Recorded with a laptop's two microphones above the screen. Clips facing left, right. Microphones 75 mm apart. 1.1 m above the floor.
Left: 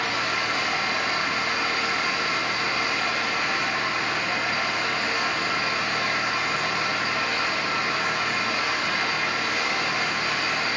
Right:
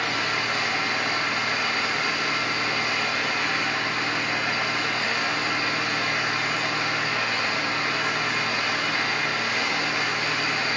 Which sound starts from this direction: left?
An engine running, at 0.0 s.